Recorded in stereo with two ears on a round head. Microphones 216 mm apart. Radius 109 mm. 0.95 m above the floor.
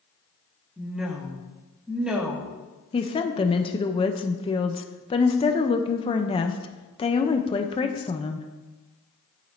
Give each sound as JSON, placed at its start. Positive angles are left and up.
{"t": 0.8, "sound": "a woman speaking", "side_deg": -5, "distance_m": 1.2}
{"t": 2.9, "sound": "a woman speaking", "side_deg": 20, "distance_m": 0.6}